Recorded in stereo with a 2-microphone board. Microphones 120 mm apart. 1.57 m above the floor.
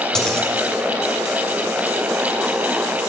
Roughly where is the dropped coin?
Centre.